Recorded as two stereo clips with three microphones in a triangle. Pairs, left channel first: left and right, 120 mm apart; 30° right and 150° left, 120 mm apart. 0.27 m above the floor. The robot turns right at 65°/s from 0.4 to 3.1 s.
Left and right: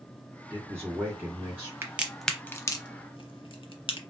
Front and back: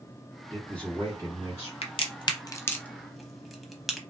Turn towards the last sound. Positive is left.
turn(degrees=60)